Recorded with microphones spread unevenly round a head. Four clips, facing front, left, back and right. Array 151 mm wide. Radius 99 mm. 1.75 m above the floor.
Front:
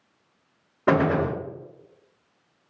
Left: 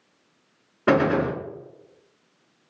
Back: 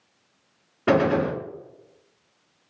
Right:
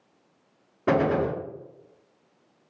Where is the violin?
I don't hear a violin.